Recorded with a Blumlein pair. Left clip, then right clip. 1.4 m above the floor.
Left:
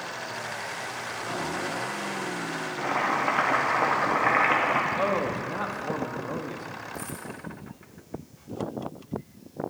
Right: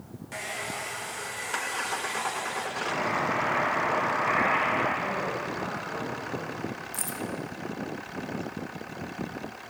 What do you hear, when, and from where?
0.3 s a hair dryer: 45° right, 1.1 m
2.8 s boiling: 50° left, 2.5 m
4.9 s a man speaking: 50° left, 2 m
6.9 s keys jangling: 50° right, 1.0 m